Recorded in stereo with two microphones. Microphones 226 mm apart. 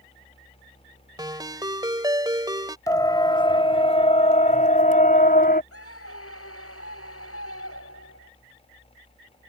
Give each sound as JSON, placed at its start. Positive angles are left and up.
{"t": 1.2, "sound": "a ringtone", "side_deg": -20}
{"t": 2.9, "sound": "a siren", "side_deg": 15}
{"t": 5.7, "sound": "a scream", "side_deg": 80}